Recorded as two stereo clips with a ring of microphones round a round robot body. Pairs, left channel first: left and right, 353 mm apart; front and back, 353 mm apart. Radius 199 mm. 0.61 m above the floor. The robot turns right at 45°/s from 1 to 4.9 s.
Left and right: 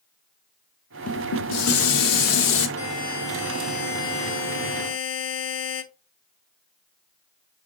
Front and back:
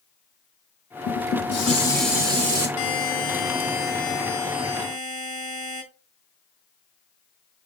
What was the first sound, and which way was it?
Dishes clattering, 45° left.